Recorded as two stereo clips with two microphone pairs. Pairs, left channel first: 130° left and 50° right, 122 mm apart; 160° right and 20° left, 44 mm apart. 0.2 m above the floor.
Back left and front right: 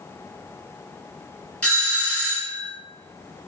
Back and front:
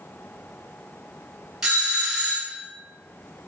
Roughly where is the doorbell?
Ahead left.